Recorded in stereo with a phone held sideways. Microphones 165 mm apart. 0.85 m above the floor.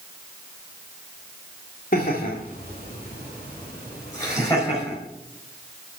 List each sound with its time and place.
1.9 s laughter: 65° left (ahead or behind), 2.5 m; by 5.0 s 15° left (ahead or behind), 5.5 m